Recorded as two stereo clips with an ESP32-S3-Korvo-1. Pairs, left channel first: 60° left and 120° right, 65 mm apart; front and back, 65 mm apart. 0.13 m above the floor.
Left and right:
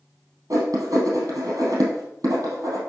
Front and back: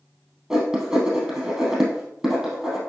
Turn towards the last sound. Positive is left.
turn(degrees=-95)